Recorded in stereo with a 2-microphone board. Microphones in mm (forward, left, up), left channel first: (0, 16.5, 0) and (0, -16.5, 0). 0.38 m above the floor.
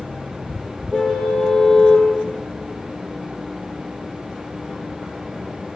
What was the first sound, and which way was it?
A car horn, 5° left (ahead or behind).